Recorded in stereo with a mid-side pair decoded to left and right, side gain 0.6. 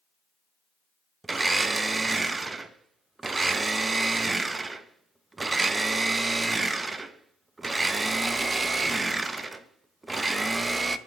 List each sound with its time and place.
1.2 s a blender: 20° right, 0.5 m